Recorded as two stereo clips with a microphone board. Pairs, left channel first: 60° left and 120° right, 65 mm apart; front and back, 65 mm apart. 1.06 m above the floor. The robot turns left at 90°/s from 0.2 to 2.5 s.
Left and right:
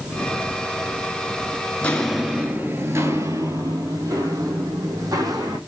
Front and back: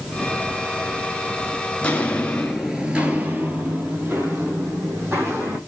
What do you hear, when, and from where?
1.8 s footsteps: 40° left, 1.0 m; by 5.6 s 130° right, 3.5 m